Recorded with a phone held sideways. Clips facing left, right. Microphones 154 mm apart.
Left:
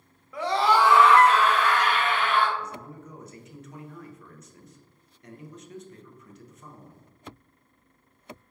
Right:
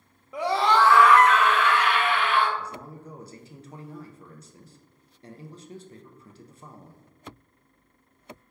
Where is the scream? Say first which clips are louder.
Even; 20° right (ahead or behind), 0.6 m; by 2.5 s 40° left (ahead or behind), 1.9 m.